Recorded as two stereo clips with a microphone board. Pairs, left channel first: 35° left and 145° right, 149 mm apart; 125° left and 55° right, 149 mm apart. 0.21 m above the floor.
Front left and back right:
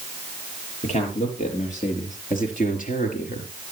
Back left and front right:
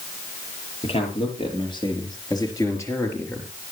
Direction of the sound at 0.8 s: 75° left.